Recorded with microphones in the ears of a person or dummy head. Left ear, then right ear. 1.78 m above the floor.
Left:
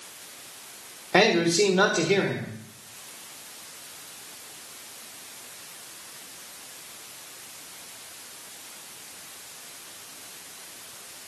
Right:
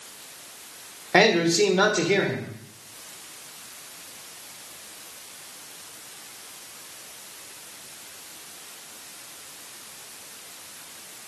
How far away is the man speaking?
About 1.4 m.